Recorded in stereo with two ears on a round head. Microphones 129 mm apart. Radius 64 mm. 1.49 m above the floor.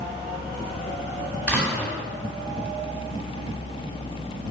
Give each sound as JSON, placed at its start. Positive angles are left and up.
{"t": 1.5, "sound": "a door slam", "side_deg": 10, "distance_m": 2.5}